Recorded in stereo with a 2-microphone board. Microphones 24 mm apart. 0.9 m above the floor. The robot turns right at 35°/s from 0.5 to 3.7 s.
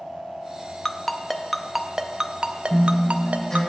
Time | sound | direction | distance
0.8 | a ringtone | 20° left (ahead or behind) | 0.6 m
2.7 | a guitar | 10° right | 3 m